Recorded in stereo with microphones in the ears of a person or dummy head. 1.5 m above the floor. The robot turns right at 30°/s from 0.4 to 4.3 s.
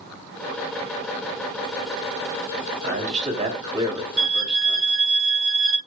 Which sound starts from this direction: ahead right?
A man speaking, at 2.8 s.